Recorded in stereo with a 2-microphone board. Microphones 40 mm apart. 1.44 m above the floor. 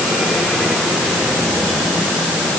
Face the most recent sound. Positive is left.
No sound to turn to.